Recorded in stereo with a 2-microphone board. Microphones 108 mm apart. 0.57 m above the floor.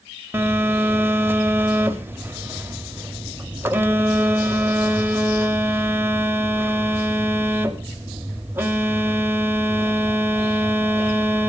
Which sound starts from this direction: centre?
A phone buzzing, at 0.3 s.